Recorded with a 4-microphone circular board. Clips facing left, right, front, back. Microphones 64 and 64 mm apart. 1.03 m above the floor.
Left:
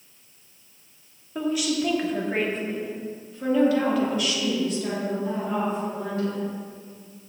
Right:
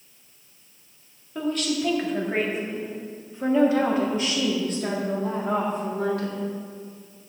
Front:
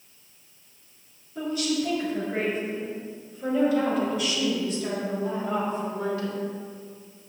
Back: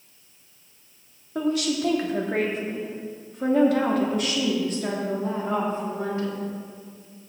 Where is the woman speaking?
170° left, 2 m; by 6.5 s 115° right, 2.5 m.